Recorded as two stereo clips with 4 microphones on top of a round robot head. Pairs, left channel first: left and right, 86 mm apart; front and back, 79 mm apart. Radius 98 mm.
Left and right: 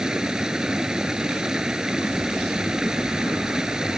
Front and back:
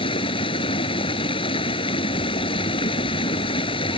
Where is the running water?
5° right.